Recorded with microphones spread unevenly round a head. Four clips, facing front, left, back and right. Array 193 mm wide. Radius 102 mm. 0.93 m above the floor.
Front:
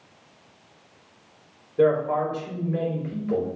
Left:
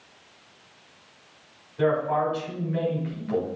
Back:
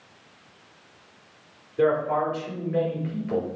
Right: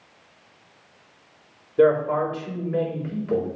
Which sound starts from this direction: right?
A man speaking, at 1.8 s.